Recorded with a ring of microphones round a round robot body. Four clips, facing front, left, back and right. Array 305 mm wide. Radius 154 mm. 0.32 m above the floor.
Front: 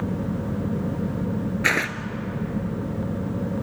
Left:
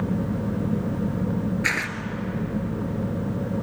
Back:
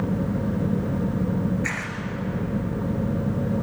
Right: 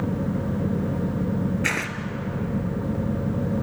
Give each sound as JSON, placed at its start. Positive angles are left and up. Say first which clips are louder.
{"t": 1.6, "sound": "tearing paper", "louder": "even, front 6 dB", "azimuth_deg": -10, "distance_m": 1.2}